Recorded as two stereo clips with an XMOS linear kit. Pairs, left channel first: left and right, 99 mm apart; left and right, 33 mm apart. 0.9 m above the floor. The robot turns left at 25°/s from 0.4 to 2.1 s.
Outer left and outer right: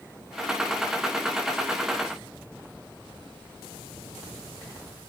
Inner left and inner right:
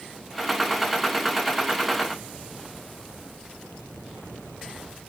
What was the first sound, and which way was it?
Only background noise.